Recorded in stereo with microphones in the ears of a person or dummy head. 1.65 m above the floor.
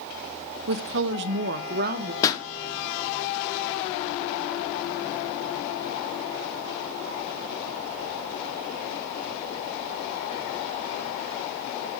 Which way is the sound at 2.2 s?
20° left (ahead or behind).